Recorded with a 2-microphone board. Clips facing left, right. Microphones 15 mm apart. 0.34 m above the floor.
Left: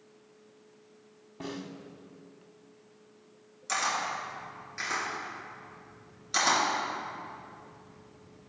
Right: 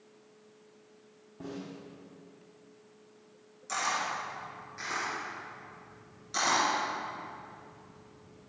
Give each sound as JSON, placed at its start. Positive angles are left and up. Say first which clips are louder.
{"t": 1.4, "sound": "a snare drum", "louder": "left 2 dB", "side_deg": 60, "distance_m": 1.1}
{"t": 3.7, "sound": "a camera shutter", "louder": "left 1 dB", "side_deg": 30, "distance_m": 4.0}